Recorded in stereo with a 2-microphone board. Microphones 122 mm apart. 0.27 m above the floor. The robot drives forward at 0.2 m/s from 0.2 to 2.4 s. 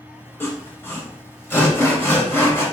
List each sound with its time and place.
0.4 s sawing: 20° left (ahead or behind), 0.8 m